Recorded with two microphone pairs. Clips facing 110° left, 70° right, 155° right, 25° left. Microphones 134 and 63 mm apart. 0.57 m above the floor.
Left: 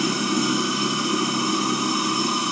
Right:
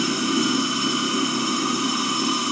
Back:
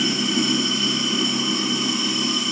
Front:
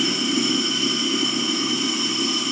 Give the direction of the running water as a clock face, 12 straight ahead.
7 o'clock.